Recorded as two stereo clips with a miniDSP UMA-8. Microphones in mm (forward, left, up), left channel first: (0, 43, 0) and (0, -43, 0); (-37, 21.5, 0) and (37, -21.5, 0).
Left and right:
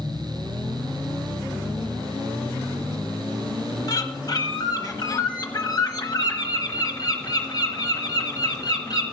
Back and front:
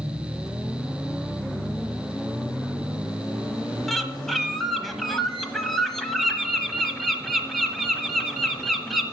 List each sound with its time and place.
3.9 s a bird: 60° left, 1.2 m